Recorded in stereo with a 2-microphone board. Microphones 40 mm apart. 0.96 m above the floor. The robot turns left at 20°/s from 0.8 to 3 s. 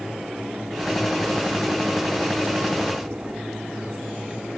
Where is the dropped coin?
No dropped coin in this recording.